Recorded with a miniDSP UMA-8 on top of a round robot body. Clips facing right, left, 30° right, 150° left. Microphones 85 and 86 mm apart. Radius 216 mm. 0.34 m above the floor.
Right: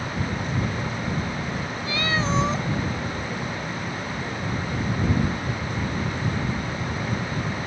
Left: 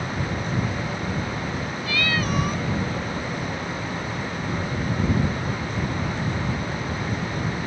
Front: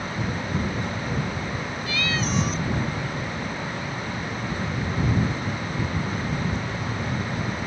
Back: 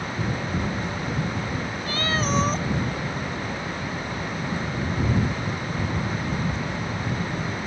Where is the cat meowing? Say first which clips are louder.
Right 1 dB, back 2 dB; 155° right.